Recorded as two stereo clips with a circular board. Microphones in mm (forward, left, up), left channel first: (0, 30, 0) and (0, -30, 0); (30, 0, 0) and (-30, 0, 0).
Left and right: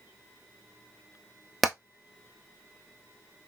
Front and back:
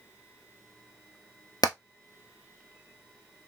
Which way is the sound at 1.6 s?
Straight ahead.